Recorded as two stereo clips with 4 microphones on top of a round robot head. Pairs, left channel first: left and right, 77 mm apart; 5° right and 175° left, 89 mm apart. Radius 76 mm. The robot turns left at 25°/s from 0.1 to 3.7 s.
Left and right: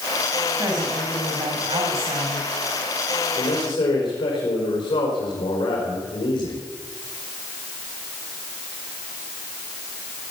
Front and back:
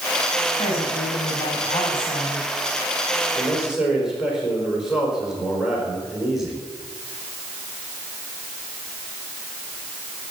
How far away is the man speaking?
About 4.5 m.